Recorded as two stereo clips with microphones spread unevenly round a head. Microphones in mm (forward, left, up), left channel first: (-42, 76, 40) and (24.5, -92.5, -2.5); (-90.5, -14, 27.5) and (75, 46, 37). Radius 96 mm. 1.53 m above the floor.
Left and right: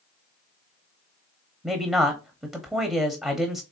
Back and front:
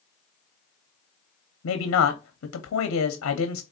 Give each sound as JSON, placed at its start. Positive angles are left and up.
{"t": 1.6, "sound": "a man speaking", "azimuth_deg": -155, "distance_m": 0.8}